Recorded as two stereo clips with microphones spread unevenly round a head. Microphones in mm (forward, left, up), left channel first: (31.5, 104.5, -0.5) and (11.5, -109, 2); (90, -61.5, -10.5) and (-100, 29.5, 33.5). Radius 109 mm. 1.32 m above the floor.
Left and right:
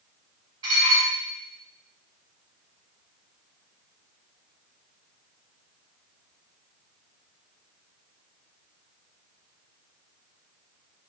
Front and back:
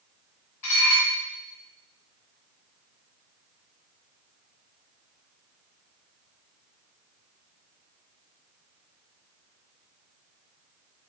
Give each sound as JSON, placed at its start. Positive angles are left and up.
{"t": 0.6, "sound": "dishes clattering", "azimuth_deg": -25, "distance_m": 1.6}